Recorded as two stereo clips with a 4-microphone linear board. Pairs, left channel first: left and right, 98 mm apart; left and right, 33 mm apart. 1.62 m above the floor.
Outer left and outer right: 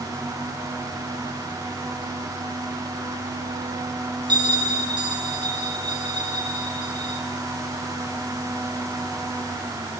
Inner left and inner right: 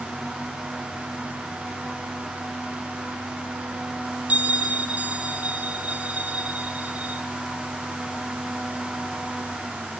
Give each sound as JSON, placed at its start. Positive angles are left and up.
{"t": 4.3, "sound": "a bell", "side_deg": -45, "distance_m": 3.5}